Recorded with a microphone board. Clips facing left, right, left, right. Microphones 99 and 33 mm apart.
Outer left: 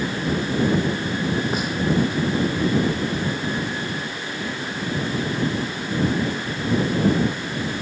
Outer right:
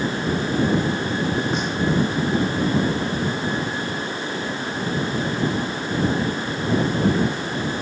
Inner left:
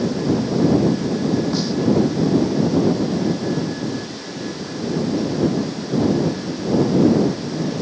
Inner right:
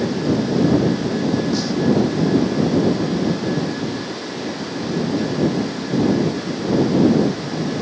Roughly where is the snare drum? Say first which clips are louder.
Outer right 1 dB, inner right 1 dB; centre.